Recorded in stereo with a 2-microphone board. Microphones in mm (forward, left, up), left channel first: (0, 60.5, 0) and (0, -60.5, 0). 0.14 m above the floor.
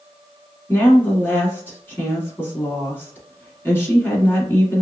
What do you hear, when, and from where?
0.7 s a woman speaking: 20° left (ahead or behind), 1.1 m